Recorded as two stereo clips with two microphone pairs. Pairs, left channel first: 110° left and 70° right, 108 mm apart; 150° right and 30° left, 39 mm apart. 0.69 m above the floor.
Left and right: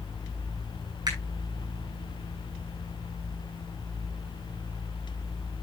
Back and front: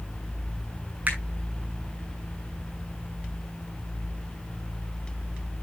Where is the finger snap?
20° right, 7 m.